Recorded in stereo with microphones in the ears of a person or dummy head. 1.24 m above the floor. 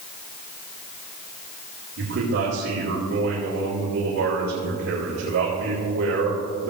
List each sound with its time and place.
2.0 s a man speaking: 65° right (ahead or behind), 3.5 m